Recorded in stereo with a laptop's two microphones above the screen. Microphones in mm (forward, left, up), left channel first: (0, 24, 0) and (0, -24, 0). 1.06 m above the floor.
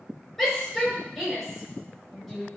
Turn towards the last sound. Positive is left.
turn(degrees=0)  # may be behind; listen again after turning